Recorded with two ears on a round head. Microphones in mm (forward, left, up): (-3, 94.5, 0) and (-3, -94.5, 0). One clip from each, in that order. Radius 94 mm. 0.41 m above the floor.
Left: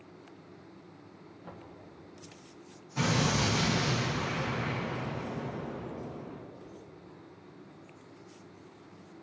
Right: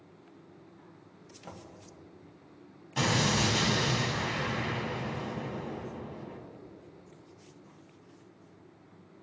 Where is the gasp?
I don't hear a gasp.